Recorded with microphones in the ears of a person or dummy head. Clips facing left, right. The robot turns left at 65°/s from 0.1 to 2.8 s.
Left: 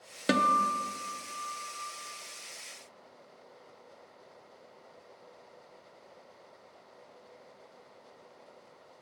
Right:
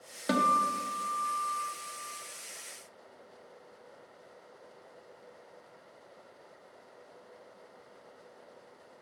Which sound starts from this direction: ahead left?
A guitar, at 0.3 s.